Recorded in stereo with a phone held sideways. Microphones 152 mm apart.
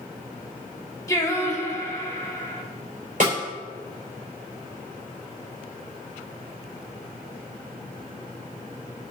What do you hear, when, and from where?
1.1 s singing: 20° left (ahead or behind), 1.6 m
3.2 s a snare drum: 55° right (ahead or behind), 3 m